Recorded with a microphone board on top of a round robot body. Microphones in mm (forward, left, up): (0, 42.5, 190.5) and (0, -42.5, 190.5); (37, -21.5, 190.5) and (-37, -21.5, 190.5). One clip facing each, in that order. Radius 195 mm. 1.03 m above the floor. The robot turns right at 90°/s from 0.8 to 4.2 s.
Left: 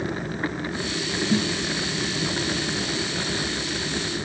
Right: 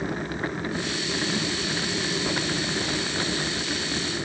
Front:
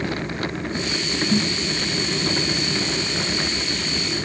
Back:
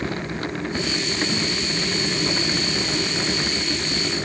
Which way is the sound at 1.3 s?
55° left.